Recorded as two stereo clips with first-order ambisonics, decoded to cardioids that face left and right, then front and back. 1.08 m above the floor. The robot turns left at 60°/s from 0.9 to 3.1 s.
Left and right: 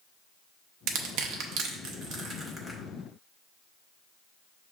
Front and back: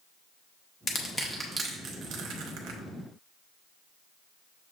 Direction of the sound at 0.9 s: 65° right.